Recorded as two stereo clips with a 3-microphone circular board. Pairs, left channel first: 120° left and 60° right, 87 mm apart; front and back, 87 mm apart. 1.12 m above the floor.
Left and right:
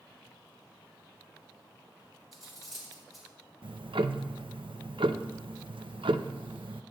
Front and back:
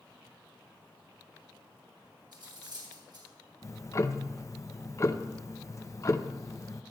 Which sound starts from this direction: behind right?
Cutlery clinking, at 2.3 s.